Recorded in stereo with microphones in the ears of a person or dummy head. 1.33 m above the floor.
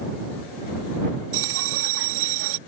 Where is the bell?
80° right.